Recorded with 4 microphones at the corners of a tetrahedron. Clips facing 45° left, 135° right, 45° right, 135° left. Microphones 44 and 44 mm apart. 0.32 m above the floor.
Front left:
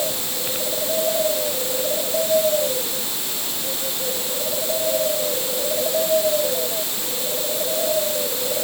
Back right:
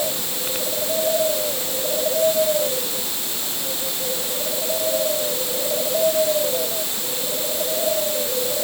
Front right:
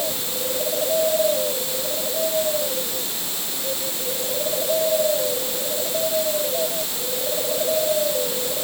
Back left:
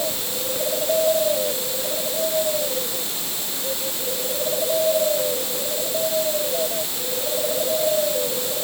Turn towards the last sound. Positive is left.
No sound to turn to.